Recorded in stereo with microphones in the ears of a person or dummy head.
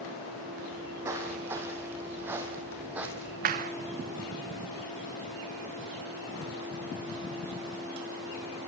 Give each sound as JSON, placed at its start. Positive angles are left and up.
{"t": 0.7, "sound": "footsteps", "side_deg": -20, "distance_m": 5.5}
{"t": 3.5, "sound": "a clap", "side_deg": -50, "distance_m": 2.0}